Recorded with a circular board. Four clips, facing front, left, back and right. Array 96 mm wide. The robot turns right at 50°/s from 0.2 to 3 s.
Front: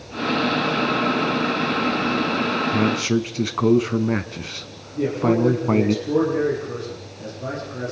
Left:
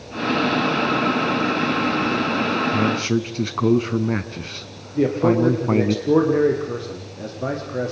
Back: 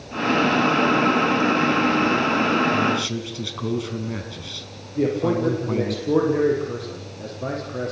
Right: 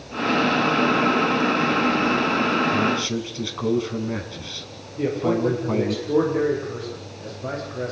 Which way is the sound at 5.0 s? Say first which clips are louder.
Left 5 dB, front 1 dB; 110° left.